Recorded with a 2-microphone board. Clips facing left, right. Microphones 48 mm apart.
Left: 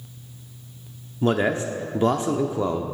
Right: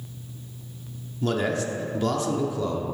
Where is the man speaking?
25° left (ahead or behind), 0.7 m.